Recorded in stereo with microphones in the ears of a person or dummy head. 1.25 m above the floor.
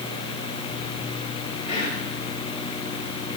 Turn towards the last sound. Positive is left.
turn(degrees=30)  # may be behind; listen again after turning